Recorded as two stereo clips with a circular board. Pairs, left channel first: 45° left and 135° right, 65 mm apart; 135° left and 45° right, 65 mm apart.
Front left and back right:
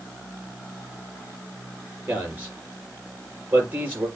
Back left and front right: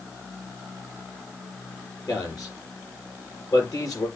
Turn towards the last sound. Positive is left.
turn(degrees=165)